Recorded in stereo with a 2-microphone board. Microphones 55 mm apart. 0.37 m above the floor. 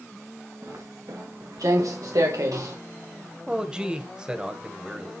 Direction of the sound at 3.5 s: 15° right (ahead or behind).